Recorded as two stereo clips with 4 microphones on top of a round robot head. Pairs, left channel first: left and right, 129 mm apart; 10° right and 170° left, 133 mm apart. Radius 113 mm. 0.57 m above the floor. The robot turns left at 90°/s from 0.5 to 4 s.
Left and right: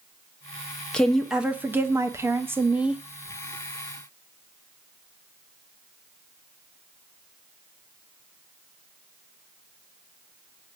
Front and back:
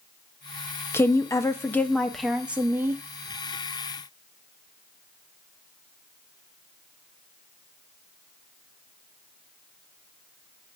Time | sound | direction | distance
0.9 | a woman speaking | 20° left | 0.7 m